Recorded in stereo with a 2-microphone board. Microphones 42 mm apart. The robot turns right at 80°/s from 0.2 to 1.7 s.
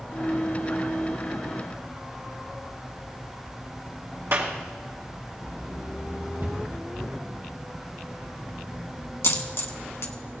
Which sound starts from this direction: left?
A dropped coin, at 9.2 s.